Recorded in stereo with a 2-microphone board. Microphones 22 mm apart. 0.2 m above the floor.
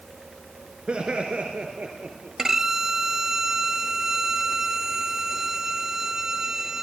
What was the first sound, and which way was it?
Laughter, 55° right (ahead or behind).